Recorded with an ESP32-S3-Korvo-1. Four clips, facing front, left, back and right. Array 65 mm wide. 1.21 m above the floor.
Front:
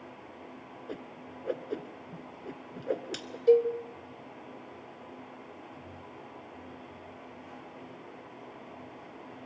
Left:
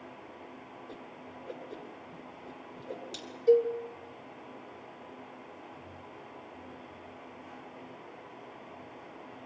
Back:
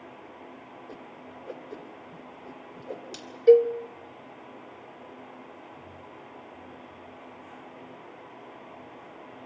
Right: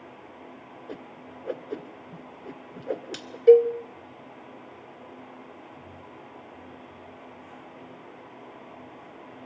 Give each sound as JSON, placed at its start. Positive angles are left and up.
{"t": 0.9, "sound": "a whoosh", "azimuth_deg": -65, "distance_m": 1.4}
{"t": 3.5, "sound": "a cowbell", "azimuth_deg": -125, "distance_m": 0.5}